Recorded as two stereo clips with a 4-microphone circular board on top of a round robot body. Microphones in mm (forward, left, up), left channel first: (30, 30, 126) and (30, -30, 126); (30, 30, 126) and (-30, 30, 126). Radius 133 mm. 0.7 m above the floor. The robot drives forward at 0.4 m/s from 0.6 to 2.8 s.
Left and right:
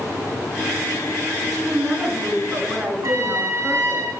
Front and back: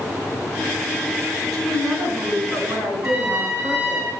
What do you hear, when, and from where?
1.5 s a woman speaking: 175° left, 6.5 m
3.0 s a trumpet: 135° right, 4.5 m